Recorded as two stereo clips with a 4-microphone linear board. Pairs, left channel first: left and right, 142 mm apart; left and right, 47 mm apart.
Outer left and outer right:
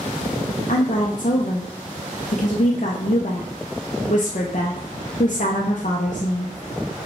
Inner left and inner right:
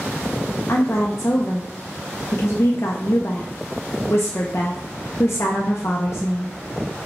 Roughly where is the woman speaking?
Left.